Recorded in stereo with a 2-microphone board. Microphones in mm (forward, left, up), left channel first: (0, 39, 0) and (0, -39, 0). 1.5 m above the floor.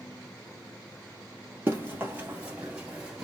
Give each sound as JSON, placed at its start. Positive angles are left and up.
{"t": 1.7, "sound": "running footsteps", "side_deg": -30, "distance_m": 1.8}